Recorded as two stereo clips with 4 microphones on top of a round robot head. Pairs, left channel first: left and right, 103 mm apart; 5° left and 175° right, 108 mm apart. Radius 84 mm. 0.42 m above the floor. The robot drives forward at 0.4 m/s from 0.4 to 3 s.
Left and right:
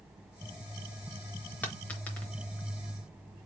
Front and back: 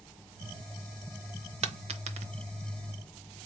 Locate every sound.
1.6 s a dropped coin: 165° left, 0.7 m; by 2.3 s 170° left, 0.9 m